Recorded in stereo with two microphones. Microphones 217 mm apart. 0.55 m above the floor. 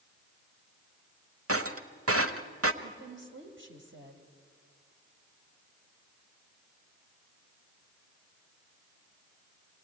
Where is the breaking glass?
85° right, 1.0 m.